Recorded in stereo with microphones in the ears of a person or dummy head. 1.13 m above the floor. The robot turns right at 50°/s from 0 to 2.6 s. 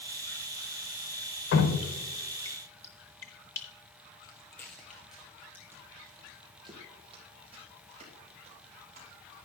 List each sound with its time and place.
1.5 s dripping: 70° left (ahead or behind), 1.0 m; by 3.7 s 15° left (ahead or behind), 1.0 m
4.2 s footsteps: 20° left (ahead or behind), 1.3 m; by 9.4 s 45° right (ahead or behind), 4.5 m